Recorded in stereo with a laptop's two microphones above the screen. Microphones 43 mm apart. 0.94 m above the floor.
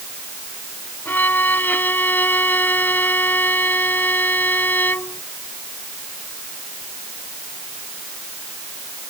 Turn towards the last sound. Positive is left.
turn(degrees=50)  # may be behind; listen again after turning